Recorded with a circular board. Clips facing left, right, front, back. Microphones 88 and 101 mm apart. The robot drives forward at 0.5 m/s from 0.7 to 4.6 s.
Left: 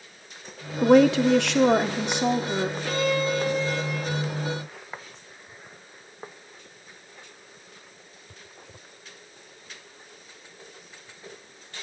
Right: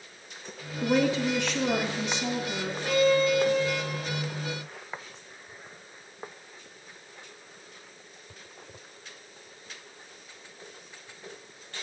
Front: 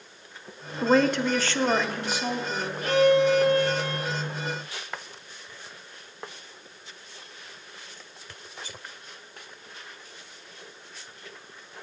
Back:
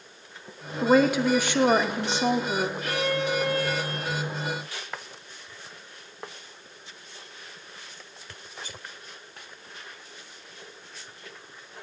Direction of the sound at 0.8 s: 90° left.